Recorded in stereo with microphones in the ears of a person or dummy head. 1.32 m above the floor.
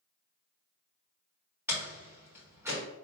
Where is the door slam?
10° right (ahead or behind), 1.7 m.